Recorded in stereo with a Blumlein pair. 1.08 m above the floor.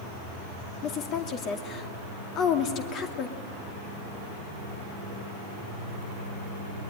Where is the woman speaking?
35° left, 2.5 m.